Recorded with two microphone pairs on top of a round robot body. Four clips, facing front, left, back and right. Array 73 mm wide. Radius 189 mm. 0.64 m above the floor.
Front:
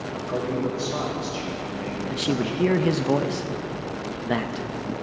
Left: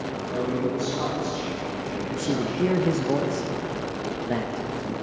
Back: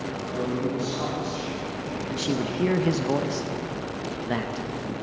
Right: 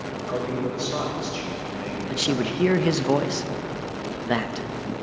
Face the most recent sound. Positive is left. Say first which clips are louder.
# right 2 dB, front 2 dB
turn(degrees=-80)